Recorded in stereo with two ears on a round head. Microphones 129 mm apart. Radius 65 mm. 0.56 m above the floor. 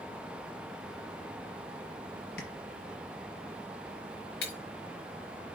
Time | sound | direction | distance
2.4 | tapping | 85° left | 4 m
4.4 | breaking glass | 85° left | 4 m